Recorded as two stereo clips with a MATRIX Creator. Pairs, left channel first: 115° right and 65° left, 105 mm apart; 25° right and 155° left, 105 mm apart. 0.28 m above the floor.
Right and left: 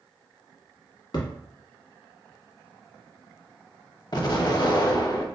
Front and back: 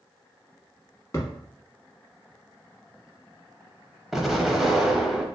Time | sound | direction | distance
1.1 | a thud | 80° right | 1.1 m
4.1 | an explosion | 115° right | 0.5 m